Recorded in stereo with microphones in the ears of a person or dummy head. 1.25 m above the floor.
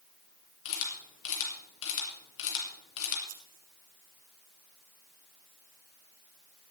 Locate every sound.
0.7 s a camera shutter: 75° left (ahead or behind), 4 m
3.3 s scissors: 75° right (ahead or behind), 3.5 m